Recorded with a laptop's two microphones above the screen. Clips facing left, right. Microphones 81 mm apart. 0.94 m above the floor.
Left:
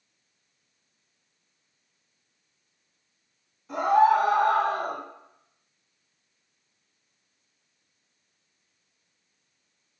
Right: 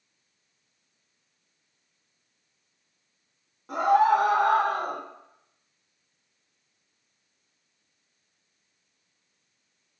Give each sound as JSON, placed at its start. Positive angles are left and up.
{"t": 3.7, "sound": "a scream", "side_deg": -55, "distance_m": 1.1}